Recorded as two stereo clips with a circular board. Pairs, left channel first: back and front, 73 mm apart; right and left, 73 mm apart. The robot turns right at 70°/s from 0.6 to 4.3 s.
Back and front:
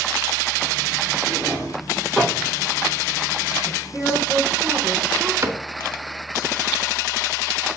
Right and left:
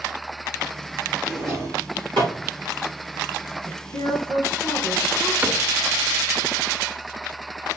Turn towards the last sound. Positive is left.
turn(degrees=35)